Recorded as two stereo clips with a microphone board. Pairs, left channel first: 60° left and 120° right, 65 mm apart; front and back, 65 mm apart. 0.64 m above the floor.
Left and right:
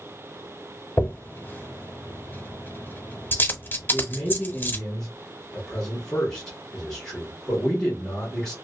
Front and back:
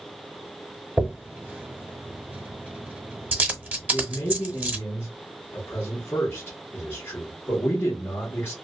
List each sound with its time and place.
1.0 s a dropped coin: 120° left, 0.7 m
3.9 s a man speaking: 15° right, 1.0 m